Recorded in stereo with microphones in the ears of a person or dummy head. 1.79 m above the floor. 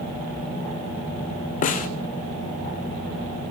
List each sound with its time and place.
1.6 s a snare drum: 45° left (ahead or behind), 0.6 m